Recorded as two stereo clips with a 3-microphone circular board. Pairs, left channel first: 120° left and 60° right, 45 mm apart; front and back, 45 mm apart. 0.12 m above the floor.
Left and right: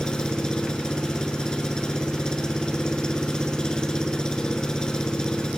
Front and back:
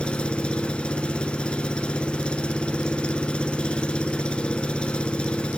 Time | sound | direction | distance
0.0 | an engine running | 55° left | 0.9 m